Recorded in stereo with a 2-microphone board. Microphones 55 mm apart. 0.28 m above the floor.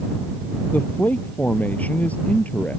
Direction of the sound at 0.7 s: 30° left (ahead or behind).